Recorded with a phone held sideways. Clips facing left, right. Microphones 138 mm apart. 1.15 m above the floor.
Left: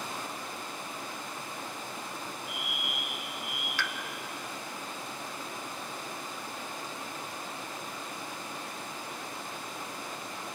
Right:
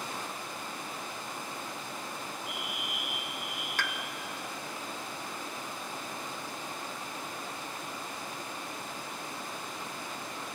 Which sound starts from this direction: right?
A pop, at 3.8 s.